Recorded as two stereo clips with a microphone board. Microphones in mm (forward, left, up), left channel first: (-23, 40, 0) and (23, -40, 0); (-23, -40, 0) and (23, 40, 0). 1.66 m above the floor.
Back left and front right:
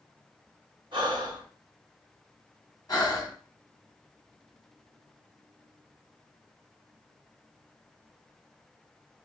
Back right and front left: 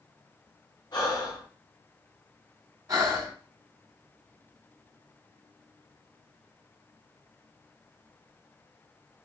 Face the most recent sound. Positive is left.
turn(degrees=95)